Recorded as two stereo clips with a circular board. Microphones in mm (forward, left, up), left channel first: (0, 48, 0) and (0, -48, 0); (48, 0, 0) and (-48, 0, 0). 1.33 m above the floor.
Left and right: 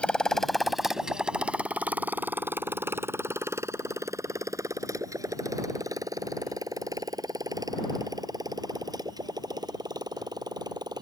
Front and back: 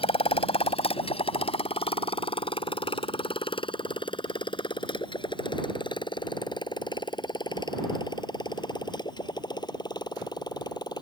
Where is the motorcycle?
10° left; by 11.0 s 45° right.